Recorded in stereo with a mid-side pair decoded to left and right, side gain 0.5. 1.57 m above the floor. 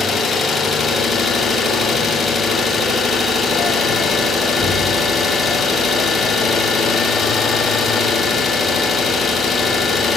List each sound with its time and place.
0.0 s an engine running: 40° left, 2.5 m